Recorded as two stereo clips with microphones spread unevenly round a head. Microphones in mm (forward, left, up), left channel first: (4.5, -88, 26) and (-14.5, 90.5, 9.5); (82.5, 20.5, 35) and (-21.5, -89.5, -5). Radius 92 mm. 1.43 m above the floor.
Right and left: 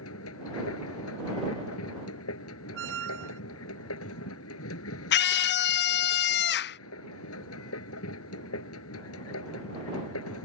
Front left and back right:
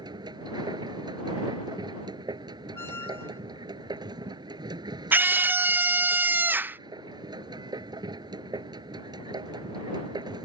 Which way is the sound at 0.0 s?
65° right.